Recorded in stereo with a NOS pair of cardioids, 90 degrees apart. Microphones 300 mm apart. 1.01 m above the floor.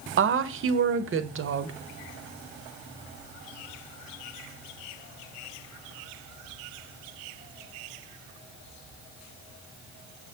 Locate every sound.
0.2 s a woman speaking: 45° right, 0.7 m